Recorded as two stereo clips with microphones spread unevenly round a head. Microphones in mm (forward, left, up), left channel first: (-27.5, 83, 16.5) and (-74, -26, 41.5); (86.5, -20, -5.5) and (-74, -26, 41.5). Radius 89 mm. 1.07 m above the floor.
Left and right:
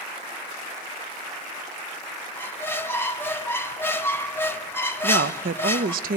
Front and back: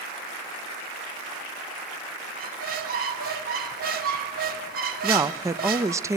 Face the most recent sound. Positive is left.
turn(degrees=-100)